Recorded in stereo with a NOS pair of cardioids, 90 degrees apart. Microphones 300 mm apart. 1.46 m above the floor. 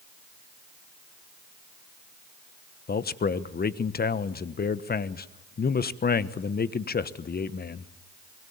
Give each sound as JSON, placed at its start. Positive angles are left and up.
{"t": 2.9, "sound": "a man speaking", "azimuth_deg": 30, "distance_m": 1.2}